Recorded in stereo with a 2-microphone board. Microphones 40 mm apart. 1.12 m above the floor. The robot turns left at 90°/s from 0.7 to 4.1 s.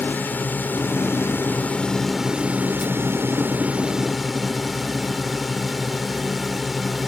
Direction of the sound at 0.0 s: 125° left.